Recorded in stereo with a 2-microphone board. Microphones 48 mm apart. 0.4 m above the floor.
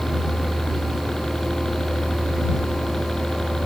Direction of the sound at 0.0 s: 15° left (ahead or behind).